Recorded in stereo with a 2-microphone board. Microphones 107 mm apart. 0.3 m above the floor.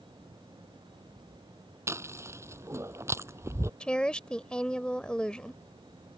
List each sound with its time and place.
1.9 s chewing: 25° right (ahead or behind)
3.8 s a woman speaking: 10° left (ahead or behind)